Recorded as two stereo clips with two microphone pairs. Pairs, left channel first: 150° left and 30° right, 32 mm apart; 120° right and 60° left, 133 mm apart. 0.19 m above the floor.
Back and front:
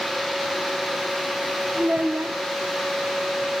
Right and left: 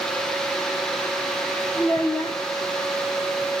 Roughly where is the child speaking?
Ahead right.